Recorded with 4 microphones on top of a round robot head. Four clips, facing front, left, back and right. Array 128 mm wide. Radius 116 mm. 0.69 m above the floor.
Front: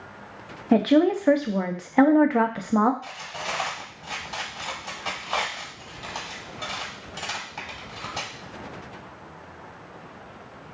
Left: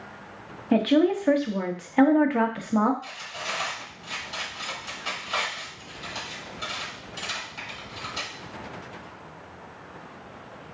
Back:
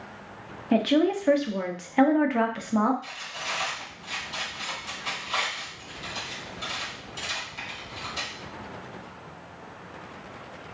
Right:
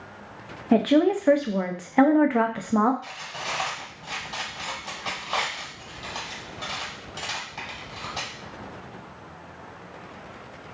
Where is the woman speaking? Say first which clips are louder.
Right 1 dB, front 3 dB; 30° right, 0.7 m.